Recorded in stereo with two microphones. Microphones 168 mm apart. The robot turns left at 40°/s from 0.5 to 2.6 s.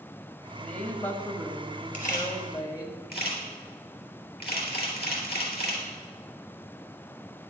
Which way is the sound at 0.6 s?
5° left (ahead or behind).